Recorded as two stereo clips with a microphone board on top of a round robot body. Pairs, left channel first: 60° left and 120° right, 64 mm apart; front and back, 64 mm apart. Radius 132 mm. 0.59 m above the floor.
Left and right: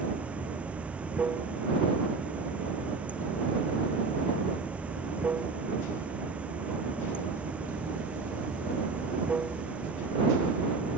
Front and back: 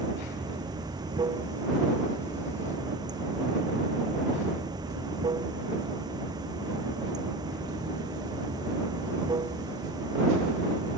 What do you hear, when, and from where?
0.0 s running water: 170° left